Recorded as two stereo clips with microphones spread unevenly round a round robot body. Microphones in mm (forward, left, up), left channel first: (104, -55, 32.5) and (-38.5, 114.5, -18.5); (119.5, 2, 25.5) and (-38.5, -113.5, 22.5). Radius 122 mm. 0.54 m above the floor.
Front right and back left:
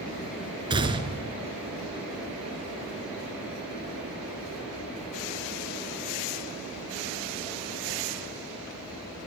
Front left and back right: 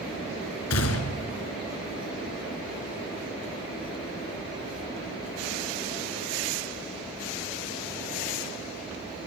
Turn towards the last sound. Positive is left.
turn(degrees=60)